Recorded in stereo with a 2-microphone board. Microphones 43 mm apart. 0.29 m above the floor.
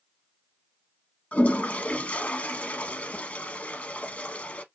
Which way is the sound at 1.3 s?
40° left (ahead or behind).